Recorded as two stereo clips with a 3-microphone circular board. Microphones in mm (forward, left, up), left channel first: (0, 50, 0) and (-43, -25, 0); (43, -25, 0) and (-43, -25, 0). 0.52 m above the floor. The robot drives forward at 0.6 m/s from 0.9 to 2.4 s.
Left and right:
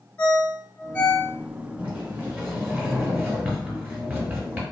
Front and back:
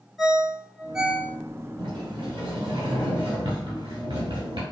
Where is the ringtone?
95° left, 0.6 m; by 1.3 s 135° left, 0.7 m.